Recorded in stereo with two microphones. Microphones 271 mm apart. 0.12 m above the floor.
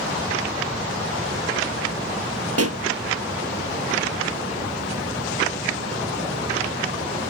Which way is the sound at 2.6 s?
60° right (ahead or behind).